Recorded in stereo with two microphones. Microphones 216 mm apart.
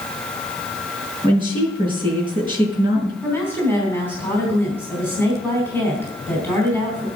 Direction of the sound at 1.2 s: 25° right (ahead or behind).